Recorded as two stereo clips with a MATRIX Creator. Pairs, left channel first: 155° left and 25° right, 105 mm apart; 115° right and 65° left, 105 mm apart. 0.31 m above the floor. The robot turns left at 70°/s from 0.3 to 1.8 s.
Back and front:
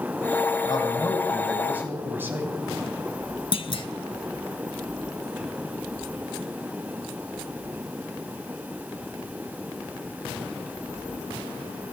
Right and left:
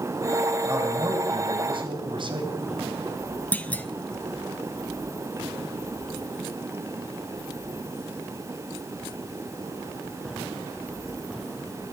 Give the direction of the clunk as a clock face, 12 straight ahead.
6 o'clock.